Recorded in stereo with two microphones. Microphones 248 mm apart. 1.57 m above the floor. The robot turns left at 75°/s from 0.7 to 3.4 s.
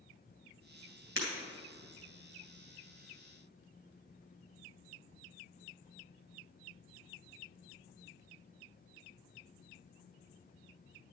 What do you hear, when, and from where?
1.2 s breaking glass: 55° right (ahead or behind), 2.5 m